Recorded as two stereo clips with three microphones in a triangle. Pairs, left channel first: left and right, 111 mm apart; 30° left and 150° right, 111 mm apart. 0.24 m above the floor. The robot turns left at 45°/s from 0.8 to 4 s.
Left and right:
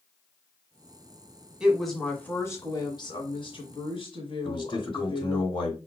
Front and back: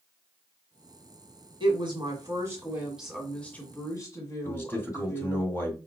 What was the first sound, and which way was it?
A woman speaking, 170° right.